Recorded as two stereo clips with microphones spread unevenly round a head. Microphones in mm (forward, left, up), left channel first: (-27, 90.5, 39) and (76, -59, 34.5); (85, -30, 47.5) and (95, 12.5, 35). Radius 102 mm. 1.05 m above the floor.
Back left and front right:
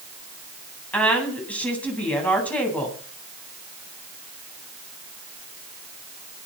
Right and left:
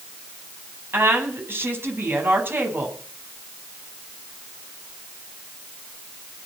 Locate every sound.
0.9 s a woman speaking: 40° left, 10 m